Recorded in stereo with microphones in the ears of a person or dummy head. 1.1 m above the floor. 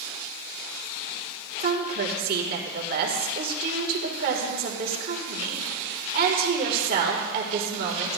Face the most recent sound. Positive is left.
turn(degrees=-55)  # may be behind; listen again after turning